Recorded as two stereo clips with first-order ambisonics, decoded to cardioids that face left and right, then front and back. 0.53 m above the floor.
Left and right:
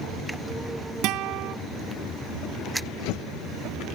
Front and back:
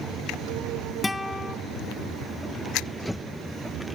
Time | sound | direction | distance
1.0 | a guitar | 80° right | 0.6 m